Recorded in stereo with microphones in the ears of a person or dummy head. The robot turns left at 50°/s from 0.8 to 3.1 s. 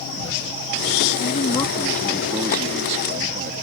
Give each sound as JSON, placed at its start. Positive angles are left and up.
{"t": 1.2, "sound": "a man speaking", "azimuth_deg": 45}